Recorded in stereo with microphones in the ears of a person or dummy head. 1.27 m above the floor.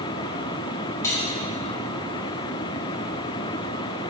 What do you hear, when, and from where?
1.0 s cutlery clinking: 15° left (ahead or behind), 4 m